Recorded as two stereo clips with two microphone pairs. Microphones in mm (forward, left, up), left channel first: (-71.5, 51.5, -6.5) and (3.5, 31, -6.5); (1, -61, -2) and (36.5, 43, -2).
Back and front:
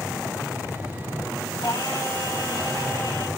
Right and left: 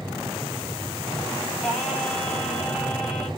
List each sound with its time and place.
1.6 s singing: 165° left, 3.5 m